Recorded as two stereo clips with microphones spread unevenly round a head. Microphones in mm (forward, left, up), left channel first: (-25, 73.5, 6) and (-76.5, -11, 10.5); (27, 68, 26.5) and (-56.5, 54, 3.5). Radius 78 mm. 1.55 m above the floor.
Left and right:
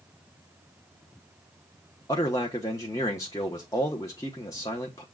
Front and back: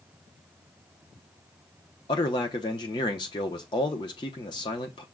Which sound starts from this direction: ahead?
A man speaking, at 2.1 s.